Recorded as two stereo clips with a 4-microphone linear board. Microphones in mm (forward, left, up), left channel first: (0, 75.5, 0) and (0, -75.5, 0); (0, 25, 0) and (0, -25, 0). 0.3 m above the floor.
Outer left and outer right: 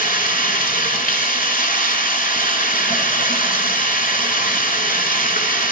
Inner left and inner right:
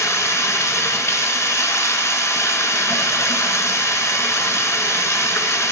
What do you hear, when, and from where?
0.0 s running water: 80° left, 1.3 m